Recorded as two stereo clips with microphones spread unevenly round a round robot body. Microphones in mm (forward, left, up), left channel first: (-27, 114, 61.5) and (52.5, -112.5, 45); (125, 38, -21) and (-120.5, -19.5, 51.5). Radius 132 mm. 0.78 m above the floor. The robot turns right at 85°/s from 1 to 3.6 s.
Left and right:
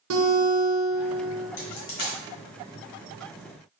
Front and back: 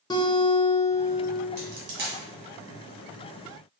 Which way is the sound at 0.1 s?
75° right.